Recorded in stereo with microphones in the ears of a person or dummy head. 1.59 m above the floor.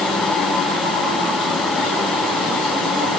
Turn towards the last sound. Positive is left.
No sound to turn to.